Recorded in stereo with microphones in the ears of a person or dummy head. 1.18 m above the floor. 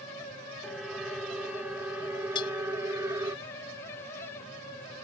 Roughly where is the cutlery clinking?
Left.